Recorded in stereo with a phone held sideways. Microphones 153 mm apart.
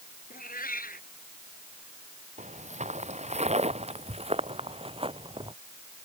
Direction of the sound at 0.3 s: 70° left (ahead or behind).